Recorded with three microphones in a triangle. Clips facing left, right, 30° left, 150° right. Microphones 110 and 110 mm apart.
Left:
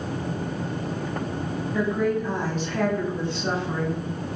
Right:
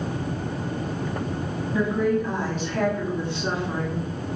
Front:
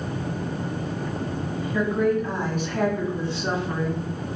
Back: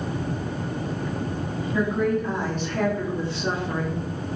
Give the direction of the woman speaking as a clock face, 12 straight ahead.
3 o'clock.